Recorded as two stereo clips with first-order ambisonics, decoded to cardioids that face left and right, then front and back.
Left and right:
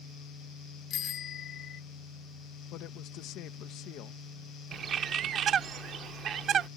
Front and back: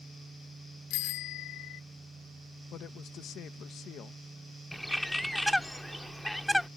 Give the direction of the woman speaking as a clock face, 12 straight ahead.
10 o'clock.